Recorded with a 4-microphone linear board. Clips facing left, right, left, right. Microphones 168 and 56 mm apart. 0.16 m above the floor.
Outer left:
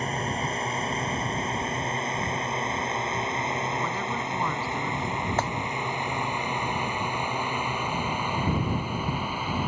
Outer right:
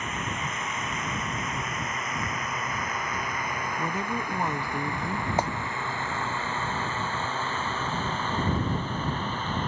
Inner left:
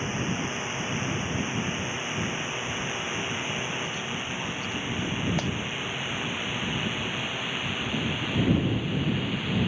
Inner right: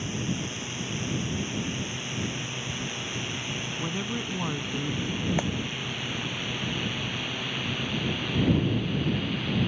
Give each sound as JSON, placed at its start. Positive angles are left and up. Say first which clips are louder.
{"t": 0.0, "sound": "a drone", "louder": "outer left 4 dB, inner left 2 dB", "side_deg": 35}
{"t": 3.8, "sound": "a woman speaking", "louder": "even, inner right 1 dB", "side_deg": -20}
{"t": 5.4, "sound": "a clap", "louder": "outer right 2 dB, inner right 1 dB", "side_deg": -15}